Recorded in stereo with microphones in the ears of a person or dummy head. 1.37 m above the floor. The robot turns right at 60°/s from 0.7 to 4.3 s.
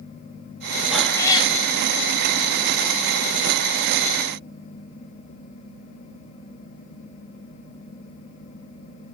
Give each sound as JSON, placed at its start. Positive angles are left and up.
{"t": 0.9, "sound": "a cat meowing", "azimuth_deg": 0, "distance_m": 1.3}